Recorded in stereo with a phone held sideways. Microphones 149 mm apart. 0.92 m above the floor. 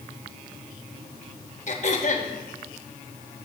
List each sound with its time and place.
1.7 s throat clearing: 55° left (ahead or behind), 1.0 m